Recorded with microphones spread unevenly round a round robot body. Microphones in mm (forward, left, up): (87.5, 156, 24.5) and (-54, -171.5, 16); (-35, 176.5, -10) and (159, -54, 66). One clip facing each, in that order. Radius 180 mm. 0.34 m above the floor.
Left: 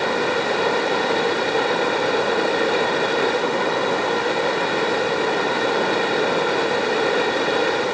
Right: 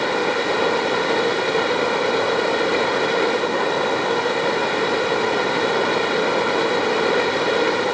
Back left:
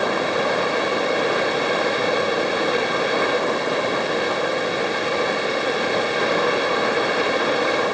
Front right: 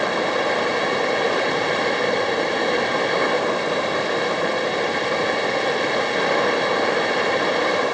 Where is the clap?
I don't hear a clap.